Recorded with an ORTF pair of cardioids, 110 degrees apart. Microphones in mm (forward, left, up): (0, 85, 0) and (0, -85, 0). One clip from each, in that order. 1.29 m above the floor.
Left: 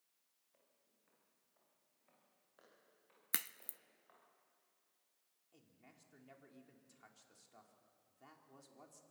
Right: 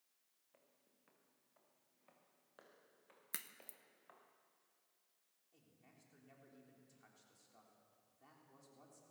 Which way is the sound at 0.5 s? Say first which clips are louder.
Right 3 dB; 35° right.